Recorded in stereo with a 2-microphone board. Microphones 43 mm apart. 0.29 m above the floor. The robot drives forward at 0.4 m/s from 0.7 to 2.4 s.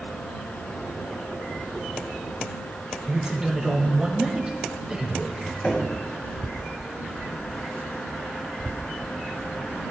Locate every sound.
3.1 s a man speaking: 15° right (ahead or behind), 1.0 m
5.6 s knocking: 40° left (ahead or behind), 1.7 m